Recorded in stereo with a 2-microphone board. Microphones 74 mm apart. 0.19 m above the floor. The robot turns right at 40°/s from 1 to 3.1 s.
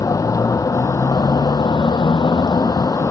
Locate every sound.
0.0 s a vehicle: 50° left; by 3.1 s 135° left